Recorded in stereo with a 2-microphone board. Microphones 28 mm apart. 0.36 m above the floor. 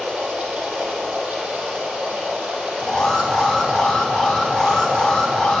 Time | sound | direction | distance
0.0 | running water | 85° right | 5 m
2.8 | an alarm | 10° left (ahead or behind) | 3.5 m